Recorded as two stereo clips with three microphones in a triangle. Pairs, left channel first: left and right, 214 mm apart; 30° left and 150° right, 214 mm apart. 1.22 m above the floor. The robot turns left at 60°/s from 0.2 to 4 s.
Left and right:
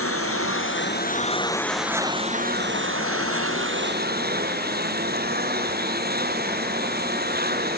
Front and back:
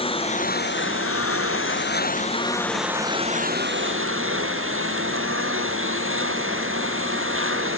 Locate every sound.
0.0 s a lawn mower: 95° left; by 7.8 s 135° right